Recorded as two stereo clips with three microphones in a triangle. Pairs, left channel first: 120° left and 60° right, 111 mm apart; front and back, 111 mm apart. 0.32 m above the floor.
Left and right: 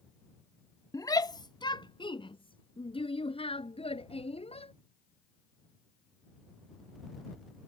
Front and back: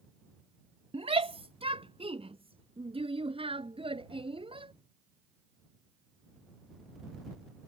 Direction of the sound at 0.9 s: 175° left.